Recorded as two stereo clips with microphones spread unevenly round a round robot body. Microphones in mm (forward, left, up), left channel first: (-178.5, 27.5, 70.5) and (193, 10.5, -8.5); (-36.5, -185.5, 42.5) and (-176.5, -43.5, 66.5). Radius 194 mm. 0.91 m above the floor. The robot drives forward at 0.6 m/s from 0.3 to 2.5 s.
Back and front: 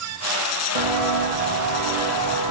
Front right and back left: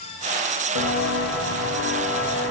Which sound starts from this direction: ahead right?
Footsteps, at 0.8 s.